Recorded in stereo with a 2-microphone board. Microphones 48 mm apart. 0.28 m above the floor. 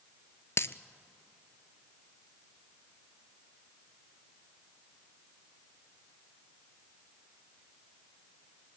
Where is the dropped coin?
60° left (ahead or behind), 0.6 m.